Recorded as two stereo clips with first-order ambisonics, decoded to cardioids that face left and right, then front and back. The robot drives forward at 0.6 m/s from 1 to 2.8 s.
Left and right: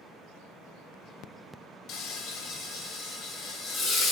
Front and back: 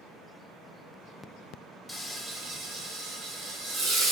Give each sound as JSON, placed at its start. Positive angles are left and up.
{"t": 1.9, "sound": "frying", "azimuth_deg": 90, "distance_m": 0.6}